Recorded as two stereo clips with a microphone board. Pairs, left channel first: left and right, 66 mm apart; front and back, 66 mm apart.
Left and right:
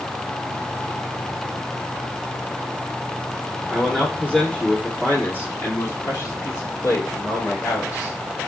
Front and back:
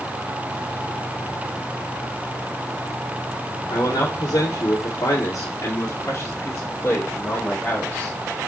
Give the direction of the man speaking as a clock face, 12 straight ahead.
12 o'clock.